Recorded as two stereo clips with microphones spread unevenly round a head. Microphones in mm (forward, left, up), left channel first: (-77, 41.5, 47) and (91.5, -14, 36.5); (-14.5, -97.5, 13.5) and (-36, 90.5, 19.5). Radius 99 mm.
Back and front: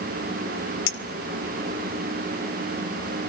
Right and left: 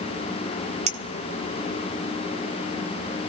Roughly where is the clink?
Behind left.